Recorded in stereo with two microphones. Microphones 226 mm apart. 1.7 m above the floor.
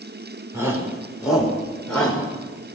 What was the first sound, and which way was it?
A shout, 10° right (ahead or behind).